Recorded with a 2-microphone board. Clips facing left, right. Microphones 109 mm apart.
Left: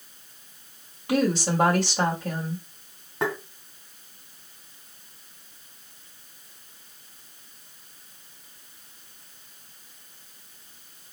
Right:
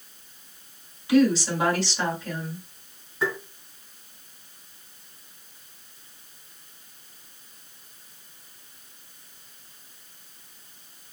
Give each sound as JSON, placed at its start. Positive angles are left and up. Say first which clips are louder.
{"t": 1.1, "sound": "a woman speaking", "louder": "right 4 dB", "side_deg": 55, "distance_m": 1.9}
{"t": 3.2, "sound": "tapping", "louder": "even", "side_deg": 70, "distance_m": 1.5}